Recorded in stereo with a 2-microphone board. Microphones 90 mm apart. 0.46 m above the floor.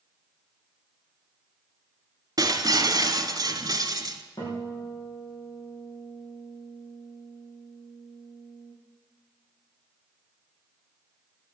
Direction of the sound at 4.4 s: 50° left (ahead or behind).